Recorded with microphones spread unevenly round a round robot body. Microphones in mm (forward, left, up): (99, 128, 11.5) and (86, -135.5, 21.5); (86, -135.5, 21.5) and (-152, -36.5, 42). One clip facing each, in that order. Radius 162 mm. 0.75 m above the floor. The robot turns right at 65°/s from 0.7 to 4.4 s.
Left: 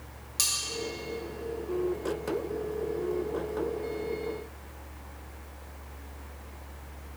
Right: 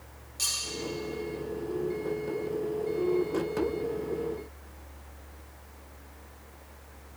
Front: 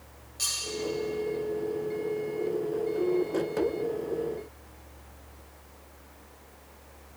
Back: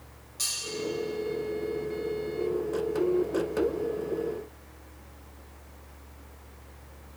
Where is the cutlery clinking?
70° left, 2 m.